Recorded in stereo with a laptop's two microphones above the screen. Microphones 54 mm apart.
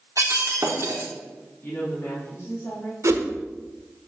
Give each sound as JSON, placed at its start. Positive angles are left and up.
{"t": 0.2, "sound": "breaking glass", "side_deg": -60, "distance_m": 1.6}
{"t": 1.6, "sound": "a woman speaking", "side_deg": 55, "distance_m": 2.0}
{"t": 3.0, "sound": "a whoosh", "side_deg": -60, "distance_m": 1.1}